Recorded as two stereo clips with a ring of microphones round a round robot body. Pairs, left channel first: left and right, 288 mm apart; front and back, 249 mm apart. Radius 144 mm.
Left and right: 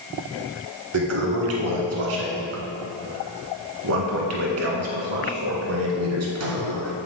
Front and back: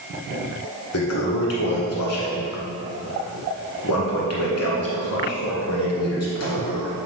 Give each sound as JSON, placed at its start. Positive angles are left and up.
{"t": 0.9, "sound": "a toilet flushing", "azimuth_deg": -45, "distance_m": 1.1}